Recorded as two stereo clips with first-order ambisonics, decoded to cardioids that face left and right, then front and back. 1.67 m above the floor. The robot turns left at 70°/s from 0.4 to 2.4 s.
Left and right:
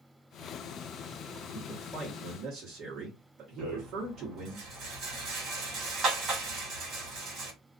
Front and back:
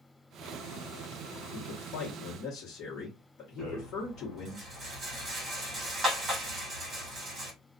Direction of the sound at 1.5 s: 25° left.